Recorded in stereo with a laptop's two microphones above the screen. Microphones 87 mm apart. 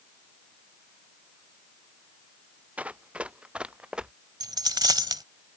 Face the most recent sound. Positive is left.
turn(degrees=-55)  # may be behind; listen again after turning